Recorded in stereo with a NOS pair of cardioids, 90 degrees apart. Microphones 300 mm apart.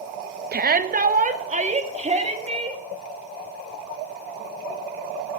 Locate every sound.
0.5 s a shout: 30° right, 1.1 m; by 2.8 s 20° right, 3 m